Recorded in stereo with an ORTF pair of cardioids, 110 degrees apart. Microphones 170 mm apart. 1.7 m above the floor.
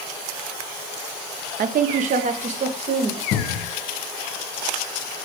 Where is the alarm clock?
I don't hear an alarm clock.